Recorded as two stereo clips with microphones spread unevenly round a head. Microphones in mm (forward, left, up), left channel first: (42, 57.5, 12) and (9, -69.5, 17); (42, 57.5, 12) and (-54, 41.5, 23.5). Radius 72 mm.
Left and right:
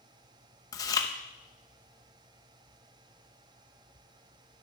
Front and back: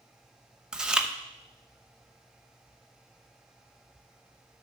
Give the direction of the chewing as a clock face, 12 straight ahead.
8 o'clock.